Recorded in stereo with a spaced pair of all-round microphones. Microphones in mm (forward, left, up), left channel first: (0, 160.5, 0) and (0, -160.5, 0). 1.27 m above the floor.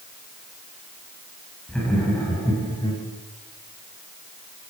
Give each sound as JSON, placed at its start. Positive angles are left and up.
{"t": 1.7, "sound": "laughter", "side_deg": 0, "distance_m": 7.0}